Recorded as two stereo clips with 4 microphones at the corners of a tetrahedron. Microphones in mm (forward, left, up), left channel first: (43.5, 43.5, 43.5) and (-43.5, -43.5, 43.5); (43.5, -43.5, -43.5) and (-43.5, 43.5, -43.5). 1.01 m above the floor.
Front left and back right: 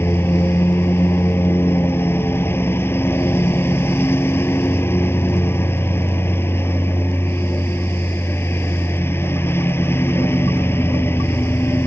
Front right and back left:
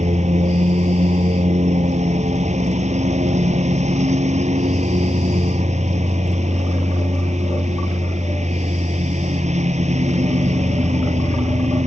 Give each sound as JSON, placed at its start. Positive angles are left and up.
{"t": 0.0, "sound": "a lawn mower", "azimuth_deg": 115}